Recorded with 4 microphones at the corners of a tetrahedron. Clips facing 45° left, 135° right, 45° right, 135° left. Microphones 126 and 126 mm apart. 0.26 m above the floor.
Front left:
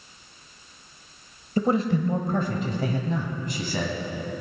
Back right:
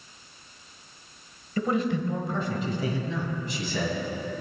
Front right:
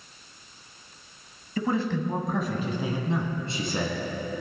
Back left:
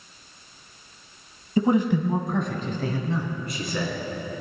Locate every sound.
1.6 s a man speaking: 85° left, 1.3 m; by 4.0 s 10° left, 2.5 m